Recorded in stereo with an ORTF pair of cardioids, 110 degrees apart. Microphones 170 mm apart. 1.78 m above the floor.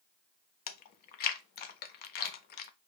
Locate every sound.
0.7 s chewing: 65° left, 0.7 m